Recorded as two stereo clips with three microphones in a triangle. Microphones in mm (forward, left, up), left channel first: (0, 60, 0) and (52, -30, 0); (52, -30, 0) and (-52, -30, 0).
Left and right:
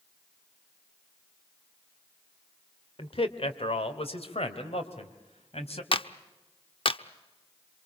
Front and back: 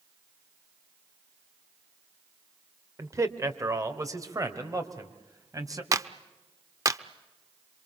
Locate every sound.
3.0 s a man speaking: 125° left, 1.8 m
5.9 s a clap: 130° left, 0.8 m